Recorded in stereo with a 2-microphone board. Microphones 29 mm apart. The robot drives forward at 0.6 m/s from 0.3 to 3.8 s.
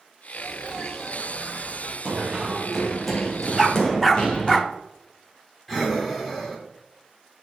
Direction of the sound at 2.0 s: 25° right (ahead or behind).